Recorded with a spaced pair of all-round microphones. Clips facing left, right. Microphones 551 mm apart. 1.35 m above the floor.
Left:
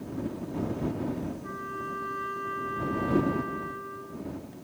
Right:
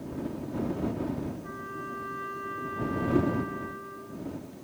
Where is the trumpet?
10° right (ahead or behind).